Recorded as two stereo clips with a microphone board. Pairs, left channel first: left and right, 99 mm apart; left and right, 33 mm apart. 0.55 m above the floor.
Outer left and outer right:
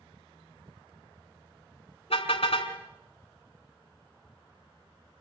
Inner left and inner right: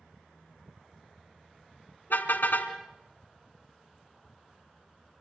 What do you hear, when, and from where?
2.1 s a car horn: 70° left (ahead or behind), 3 m